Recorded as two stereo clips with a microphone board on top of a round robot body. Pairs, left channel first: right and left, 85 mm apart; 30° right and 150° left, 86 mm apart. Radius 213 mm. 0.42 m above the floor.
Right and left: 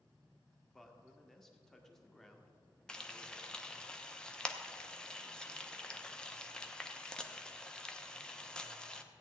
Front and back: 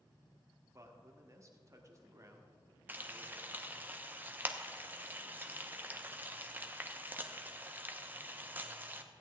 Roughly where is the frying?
Behind.